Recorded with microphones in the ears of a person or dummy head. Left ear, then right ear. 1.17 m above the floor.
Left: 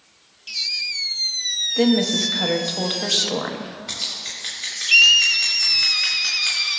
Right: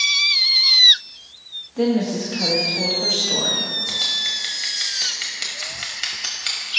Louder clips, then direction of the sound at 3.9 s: Right 3 dB; 15° right (ahead or behind).